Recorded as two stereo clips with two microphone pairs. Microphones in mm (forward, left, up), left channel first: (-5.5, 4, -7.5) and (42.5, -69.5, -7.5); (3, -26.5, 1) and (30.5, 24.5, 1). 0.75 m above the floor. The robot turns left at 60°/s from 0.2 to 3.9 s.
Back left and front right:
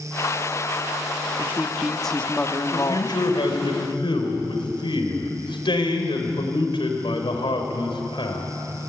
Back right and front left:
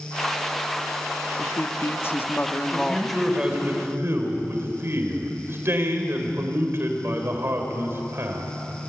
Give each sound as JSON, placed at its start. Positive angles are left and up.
{"t": 1.4, "sound": "a woman speaking", "azimuth_deg": -110, "distance_m": 1.5}
{"t": 2.7, "sound": "a man speaking", "azimuth_deg": 180, "distance_m": 4.0}